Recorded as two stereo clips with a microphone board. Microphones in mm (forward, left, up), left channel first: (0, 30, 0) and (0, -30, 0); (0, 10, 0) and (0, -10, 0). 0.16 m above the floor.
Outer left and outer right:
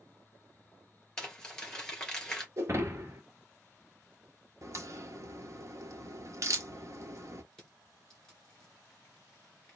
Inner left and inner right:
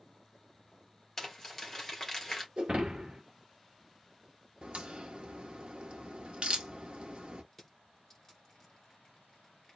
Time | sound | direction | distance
1.2 | crumpling | 15° left (ahead or behind) | 2 m
2.6 | breaking glass | 45° right (ahead or behind) | 1.8 m
4.6 | a crack | 55° right (ahead or behind) | 1.2 m
7.5 | crushing | 15° left (ahead or behind) | 2.5 m